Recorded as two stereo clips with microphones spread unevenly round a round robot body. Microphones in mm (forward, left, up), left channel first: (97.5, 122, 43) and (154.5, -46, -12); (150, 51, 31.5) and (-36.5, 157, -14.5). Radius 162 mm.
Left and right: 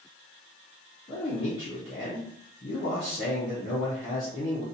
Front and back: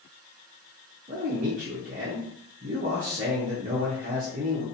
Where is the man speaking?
Straight behind, 0.6 m.